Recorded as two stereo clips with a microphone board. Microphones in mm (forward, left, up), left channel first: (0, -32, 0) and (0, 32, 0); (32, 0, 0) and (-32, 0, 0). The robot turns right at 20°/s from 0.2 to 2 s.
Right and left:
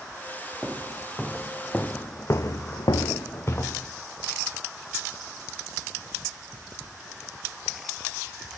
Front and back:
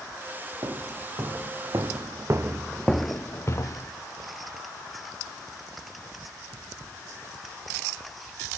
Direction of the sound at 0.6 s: 160° left.